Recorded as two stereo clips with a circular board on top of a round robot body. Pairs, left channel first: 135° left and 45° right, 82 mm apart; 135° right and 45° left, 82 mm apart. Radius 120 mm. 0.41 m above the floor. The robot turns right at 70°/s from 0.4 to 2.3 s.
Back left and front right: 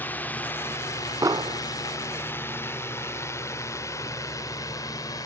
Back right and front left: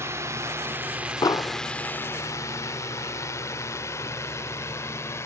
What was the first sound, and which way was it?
A drone, 80° left.